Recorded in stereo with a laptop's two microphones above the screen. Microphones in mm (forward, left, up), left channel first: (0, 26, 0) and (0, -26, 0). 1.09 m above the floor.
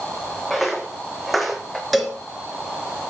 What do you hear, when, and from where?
0.5 s footsteps: centre (ahead or behind), 3 m; by 1.8 s 5° right (ahead or behind), 2 m
1.9 s a cowbell: centre (ahead or behind), 2.5 m